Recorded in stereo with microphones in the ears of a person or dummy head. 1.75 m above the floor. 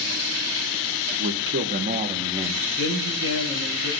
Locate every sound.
1.1 s a man speaking: 70° right (ahead or behind), 1.6 m; by 2.7 s 10° right (ahead or behind), 1.4 m
2.8 s a man speaking: 70° right (ahead or behind), 6 m